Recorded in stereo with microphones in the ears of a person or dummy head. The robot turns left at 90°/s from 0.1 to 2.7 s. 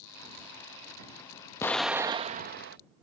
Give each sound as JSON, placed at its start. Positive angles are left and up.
{"t": 1.6, "sound": "an explosion", "azimuth_deg": 15}